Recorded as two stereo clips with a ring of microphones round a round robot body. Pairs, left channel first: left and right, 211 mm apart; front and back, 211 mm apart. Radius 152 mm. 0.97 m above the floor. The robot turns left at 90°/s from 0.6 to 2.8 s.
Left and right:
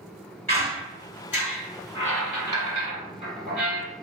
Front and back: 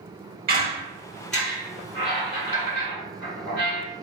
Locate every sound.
0.5 s a squeak: 155° left, 1.5 m; by 3.9 s 45° right, 1.5 m